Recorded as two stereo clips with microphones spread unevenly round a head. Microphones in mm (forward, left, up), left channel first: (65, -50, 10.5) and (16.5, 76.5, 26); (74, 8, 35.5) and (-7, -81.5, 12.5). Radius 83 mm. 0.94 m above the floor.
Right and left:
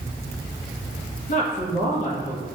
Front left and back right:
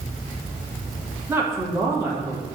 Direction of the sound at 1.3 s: 75° right.